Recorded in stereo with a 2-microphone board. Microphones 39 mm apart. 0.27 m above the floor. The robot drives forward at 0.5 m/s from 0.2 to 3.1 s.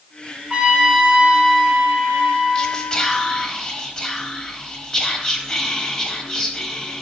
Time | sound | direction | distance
0.5 | a trumpet | 25° right (ahead or behind) | 1.2 m
2.5 | whispering | 25° left (ahead or behind) | 1.0 m